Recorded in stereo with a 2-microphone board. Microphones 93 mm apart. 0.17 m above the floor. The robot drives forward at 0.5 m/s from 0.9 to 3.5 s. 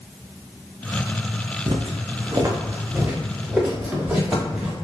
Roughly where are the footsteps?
Right.